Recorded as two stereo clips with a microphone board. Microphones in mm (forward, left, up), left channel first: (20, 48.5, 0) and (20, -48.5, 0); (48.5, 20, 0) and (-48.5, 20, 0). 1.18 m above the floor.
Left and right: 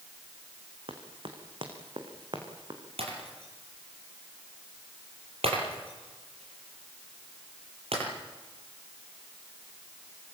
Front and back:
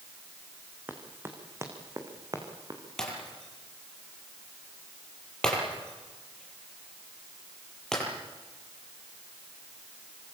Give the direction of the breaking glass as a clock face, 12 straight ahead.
3 o'clock.